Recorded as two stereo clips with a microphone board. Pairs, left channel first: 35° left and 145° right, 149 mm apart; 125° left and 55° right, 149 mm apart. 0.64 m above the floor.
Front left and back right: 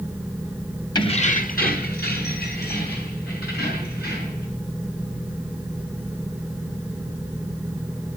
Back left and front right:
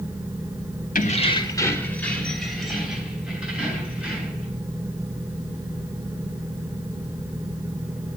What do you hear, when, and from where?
0.9 s keys jangling: 95° left, 0.9 m; by 4.5 s 25° left, 5 m